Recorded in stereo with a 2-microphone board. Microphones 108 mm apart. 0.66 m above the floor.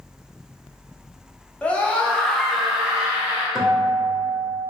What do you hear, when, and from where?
1.6 s a scream: 15° left (ahead or behind), 0.9 m; by 3.5 s 10° right (ahead or behind), 1.0 m
3.5 s a guitar: 5° right (ahead or behind), 0.7 m